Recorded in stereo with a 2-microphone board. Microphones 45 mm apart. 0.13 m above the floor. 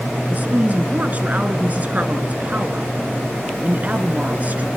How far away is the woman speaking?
About 2.0 m.